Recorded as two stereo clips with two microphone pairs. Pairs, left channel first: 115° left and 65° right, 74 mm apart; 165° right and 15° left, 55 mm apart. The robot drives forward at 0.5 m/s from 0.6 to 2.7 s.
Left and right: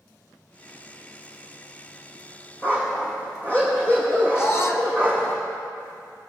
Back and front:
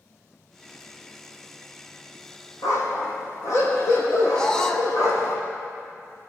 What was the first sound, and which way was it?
A dog barking, straight behind.